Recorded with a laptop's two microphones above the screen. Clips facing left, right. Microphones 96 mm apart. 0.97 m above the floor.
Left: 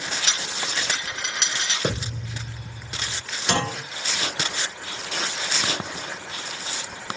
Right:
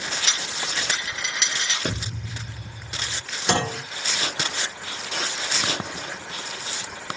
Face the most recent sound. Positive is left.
turn(degrees=-20)  # may be behind; listen again after turning